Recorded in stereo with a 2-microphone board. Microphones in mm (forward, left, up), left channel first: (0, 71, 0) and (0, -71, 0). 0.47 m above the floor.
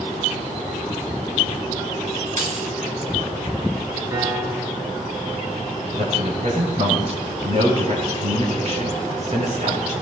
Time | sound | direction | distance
2.4 | keys jangling | 65° right (ahead or behind) | 3.5 m
4.1 | a piano | 25° right (ahead or behind) | 3 m
5.9 | a man speaking | 55° right (ahead or behind) | 8.5 m